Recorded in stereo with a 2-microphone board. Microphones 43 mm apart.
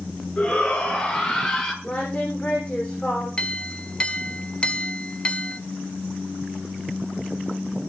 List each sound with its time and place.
0.4 s a shout: 30° left (ahead or behind), 6.5 m; by 1.7 s 20° left (ahead or behind), 6.5 m
1.8 s singing: 25° left (ahead or behind), 8.5 m
3.4 s a clink: 25° left (ahead or behind), 1.2 m